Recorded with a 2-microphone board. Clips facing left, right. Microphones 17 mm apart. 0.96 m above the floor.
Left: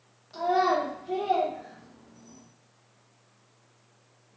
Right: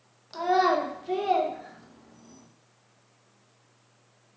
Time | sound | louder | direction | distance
0.3 | a child speaking | right 1 dB | 50° right (ahead or behind) | 0.7 m